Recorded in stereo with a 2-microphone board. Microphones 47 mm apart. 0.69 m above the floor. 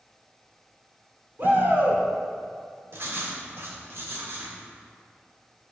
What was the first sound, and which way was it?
A shout, 45° right (ahead or behind).